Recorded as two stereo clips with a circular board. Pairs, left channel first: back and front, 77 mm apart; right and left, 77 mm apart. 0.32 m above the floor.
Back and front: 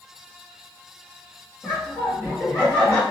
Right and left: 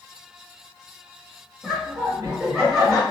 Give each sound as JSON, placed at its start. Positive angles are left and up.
{"t": 1.6, "sound": "laughter", "azimuth_deg": -160, "distance_m": 1.7}